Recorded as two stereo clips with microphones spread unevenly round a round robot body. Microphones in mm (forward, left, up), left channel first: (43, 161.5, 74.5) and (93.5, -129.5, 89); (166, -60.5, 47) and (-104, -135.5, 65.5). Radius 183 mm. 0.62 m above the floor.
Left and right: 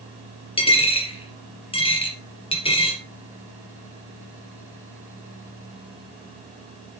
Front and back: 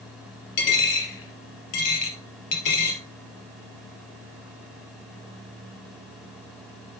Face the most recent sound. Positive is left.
turn(degrees=25)